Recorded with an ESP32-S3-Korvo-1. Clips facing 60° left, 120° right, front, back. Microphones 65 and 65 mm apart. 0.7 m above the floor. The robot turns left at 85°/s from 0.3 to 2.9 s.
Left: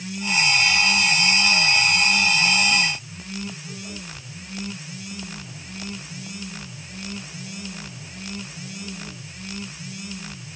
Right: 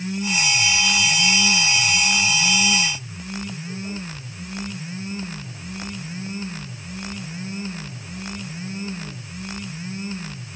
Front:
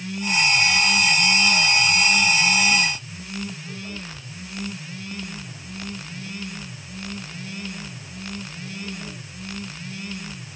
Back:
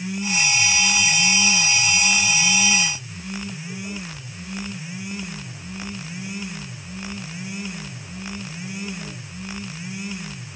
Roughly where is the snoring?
No snoring in this recording.